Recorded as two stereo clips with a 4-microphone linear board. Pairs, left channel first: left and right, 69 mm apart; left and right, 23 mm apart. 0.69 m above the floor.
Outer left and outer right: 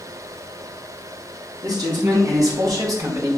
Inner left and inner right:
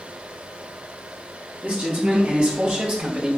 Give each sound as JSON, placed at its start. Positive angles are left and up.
{"t": 1.6, "sound": "a man speaking", "side_deg": -65, "distance_m": 4.5}